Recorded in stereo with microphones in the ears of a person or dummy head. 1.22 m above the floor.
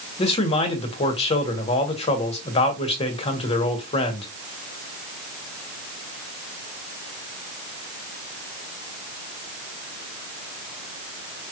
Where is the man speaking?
35° left (ahead or behind), 1.2 m.